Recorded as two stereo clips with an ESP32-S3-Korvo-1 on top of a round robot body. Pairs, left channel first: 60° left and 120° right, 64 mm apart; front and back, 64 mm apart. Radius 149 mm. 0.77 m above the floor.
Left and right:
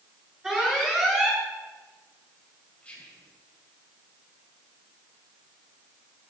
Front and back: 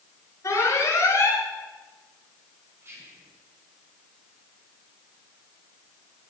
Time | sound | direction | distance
0.4 | an alarm | 35° right | 9 m
2.8 | whispering | 135° left | 6 m